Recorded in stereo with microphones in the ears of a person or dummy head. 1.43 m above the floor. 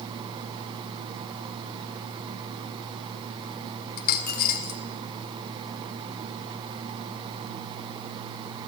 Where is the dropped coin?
50° left (ahead or behind), 1.9 m.